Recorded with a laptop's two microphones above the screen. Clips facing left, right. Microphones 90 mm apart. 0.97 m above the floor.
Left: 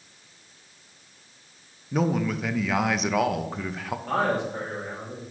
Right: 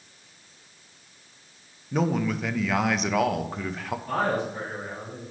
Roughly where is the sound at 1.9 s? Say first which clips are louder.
Even; centre.